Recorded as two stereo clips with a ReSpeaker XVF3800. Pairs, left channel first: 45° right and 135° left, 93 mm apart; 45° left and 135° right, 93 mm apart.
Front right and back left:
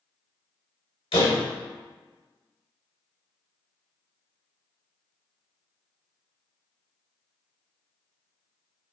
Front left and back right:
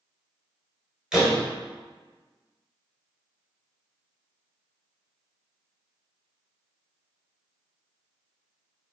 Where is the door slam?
55° right, 2.5 m.